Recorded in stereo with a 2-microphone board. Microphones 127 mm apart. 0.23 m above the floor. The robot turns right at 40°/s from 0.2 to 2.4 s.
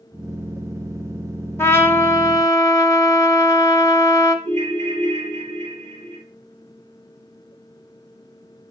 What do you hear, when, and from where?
1.6 s a trumpet: 20° left (ahead or behind), 0.8 m; by 4.3 s 25° left (ahead or behind), 0.8 m
4.5 s a ringtone: 65° right (ahead or behind), 3 m